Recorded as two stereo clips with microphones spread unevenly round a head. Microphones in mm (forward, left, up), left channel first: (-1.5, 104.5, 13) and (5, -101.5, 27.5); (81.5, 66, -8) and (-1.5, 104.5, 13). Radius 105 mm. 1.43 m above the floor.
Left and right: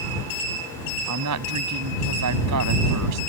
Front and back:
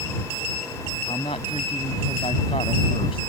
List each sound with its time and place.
1.1 s a woman speaking: 90° right